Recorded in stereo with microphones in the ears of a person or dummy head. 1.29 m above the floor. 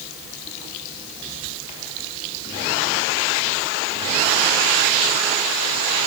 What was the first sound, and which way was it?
Only background noise.